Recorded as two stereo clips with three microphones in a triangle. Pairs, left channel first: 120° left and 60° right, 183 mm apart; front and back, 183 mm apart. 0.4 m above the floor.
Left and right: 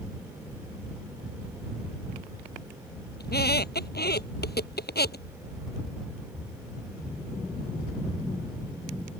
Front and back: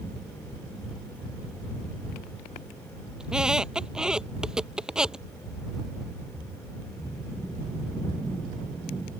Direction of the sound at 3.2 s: 95° left.